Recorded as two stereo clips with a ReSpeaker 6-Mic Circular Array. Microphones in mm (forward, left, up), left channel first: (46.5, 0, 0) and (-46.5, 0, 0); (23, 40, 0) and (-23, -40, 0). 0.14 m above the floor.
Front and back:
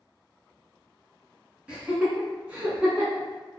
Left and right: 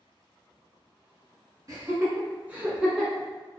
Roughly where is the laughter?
Behind right.